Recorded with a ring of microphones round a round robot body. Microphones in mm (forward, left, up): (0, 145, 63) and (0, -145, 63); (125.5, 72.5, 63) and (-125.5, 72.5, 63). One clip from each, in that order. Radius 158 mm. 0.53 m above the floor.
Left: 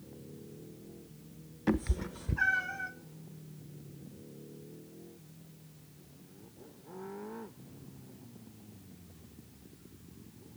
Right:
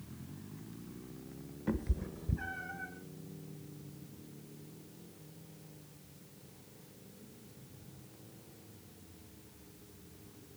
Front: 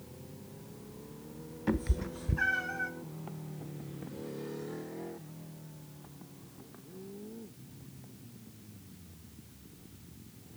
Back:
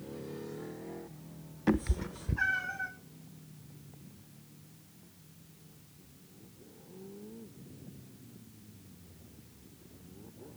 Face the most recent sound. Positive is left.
turn(degrees=95)